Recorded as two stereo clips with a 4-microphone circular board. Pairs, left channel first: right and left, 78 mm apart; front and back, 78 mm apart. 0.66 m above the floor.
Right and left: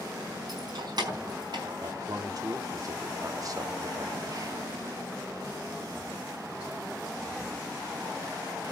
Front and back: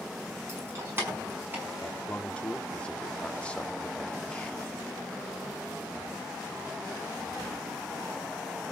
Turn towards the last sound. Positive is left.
turn(degrees=70)